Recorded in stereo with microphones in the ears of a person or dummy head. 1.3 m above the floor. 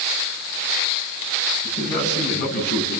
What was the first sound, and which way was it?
A man speaking, 55° left (ahead or behind).